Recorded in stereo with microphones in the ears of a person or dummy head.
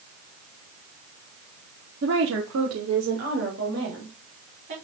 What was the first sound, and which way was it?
A woman speaking, 55° right (ahead or behind).